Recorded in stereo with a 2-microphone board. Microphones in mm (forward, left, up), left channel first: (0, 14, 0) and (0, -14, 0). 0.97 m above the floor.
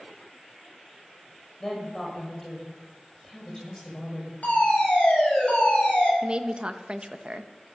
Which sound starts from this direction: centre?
A woman speaking, at 1.6 s.